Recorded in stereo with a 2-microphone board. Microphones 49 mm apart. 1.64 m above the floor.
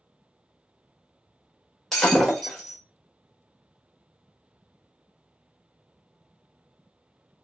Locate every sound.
1.9 s breaking glass: 5° left (ahead or behind), 1.0 m